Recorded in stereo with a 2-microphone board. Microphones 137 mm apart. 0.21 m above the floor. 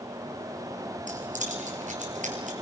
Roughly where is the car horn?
No car horn in this recording.